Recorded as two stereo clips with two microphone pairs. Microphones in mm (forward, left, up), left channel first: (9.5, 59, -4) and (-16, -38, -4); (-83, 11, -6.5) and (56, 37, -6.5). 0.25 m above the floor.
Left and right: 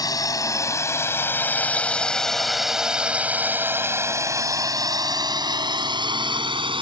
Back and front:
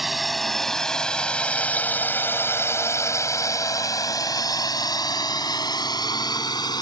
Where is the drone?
100° left; by 6.8 s 115° right.